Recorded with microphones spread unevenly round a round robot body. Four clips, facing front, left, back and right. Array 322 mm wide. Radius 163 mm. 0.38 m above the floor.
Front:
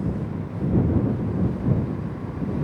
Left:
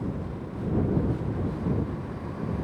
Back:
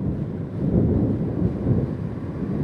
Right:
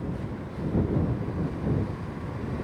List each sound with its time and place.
Only background noise.